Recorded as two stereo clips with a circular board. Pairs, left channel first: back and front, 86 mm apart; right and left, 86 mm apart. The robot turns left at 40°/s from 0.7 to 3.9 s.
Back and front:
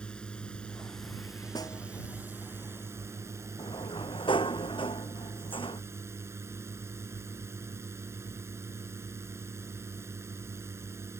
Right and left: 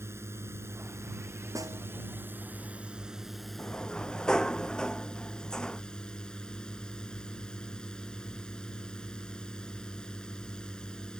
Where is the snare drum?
140° left; by 1.8 s 130° left.